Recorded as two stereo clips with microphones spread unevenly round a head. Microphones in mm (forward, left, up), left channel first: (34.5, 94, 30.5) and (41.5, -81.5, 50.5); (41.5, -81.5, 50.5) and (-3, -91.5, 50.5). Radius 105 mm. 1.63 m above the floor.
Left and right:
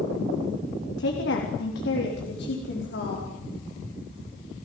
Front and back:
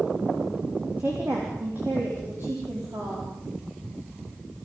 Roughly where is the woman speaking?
Behind left.